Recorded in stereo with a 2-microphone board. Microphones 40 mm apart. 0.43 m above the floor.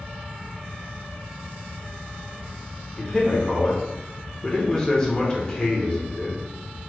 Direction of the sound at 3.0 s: 20° left (ahead or behind).